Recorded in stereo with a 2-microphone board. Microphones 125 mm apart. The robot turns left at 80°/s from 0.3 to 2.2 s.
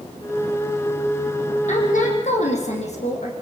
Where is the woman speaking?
110° left, 7 m; by 3.3 s 70° left, 7 m.